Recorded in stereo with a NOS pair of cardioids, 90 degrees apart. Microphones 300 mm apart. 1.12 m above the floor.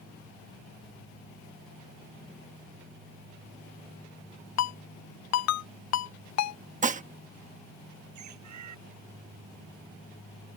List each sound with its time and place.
4.6 s a ringtone: 60° left
6.8 s dishes clattering: 25° right
8.2 s a bird: 65° right